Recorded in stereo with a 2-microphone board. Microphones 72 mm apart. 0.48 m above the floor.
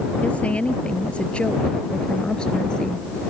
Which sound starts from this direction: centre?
A woman speaking, at 0.2 s.